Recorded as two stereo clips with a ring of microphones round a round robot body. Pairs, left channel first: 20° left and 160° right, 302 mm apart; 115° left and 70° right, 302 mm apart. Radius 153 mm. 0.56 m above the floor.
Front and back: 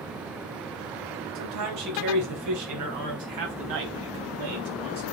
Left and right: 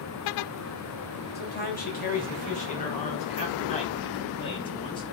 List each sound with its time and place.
1.4 s a man speaking: 170° left, 2.5 m; by 5.0 s 170° right, 4 m